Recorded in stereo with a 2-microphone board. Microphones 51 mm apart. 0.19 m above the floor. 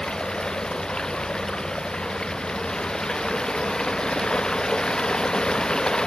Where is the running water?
15° left (ahead or behind).